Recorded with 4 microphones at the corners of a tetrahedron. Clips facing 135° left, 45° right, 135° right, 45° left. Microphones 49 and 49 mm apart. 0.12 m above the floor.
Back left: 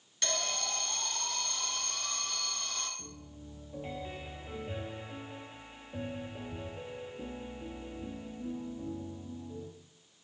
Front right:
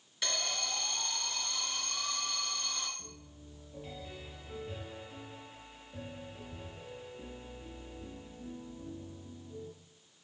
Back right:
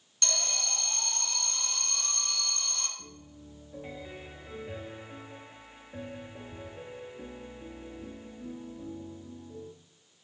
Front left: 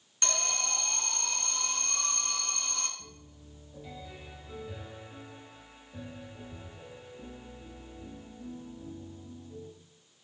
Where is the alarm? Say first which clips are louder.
Back left 1 dB, front left 2 dB; 30° left, 2 m.